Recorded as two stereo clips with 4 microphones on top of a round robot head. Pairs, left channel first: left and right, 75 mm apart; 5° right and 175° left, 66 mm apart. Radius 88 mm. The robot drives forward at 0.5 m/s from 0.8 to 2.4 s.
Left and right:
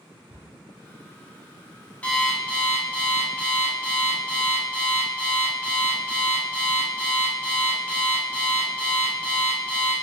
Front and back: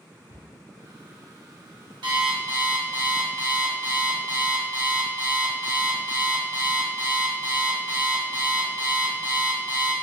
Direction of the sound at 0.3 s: 165° right.